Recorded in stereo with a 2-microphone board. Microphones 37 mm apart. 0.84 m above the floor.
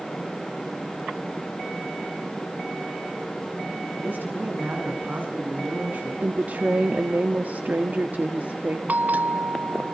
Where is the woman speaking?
50° right (ahead or behind), 1.6 m.